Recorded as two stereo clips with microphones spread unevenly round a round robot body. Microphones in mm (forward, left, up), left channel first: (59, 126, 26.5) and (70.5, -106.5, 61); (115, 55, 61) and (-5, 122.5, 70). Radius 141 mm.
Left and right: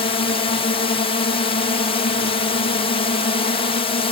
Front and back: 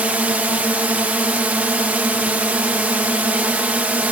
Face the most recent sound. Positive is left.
turn(degrees=75)